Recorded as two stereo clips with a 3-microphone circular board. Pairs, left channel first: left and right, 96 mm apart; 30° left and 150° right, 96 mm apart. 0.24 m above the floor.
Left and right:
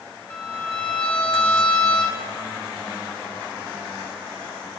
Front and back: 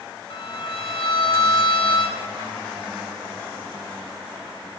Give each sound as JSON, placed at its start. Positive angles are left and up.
{"t": 0.3, "sound": "a violin", "azimuth_deg": 15, "distance_m": 0.7}